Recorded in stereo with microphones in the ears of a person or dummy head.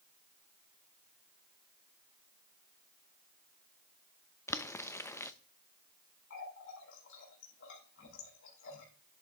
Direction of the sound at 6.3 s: 70° left (ahead or behind).